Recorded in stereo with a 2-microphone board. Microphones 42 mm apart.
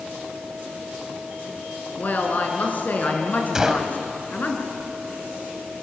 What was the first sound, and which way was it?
A woman speaking, 45° left (ahead or behind).